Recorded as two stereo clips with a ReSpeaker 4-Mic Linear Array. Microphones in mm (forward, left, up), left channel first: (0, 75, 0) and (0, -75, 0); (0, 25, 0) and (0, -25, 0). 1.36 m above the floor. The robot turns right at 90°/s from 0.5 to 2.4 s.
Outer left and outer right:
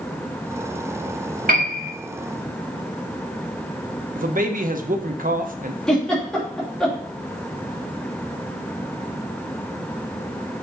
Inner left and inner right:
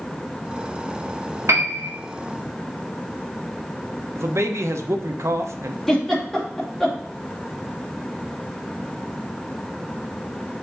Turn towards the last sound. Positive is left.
turn(degrees=5)  # may be behind; listen again after turning